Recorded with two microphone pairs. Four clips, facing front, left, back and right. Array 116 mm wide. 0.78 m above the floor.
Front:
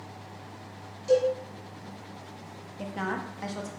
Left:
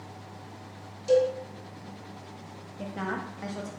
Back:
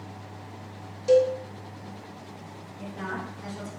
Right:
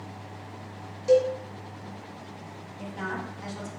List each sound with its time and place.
1.1 s a cowbell: 140° right, 1.8 m
2.8 s a woman speaking: 25° left, 0.8 m